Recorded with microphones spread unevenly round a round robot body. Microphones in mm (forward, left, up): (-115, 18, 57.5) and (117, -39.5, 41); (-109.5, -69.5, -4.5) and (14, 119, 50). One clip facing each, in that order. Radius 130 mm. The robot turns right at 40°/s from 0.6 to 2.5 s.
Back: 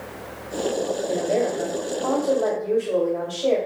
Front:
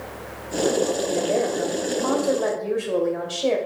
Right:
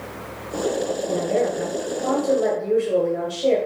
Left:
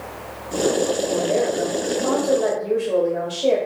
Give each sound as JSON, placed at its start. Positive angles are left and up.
{"t": 1.1, "sound": "a woman speaking", "azimuth_deg": -100, "distance_m": 1.7}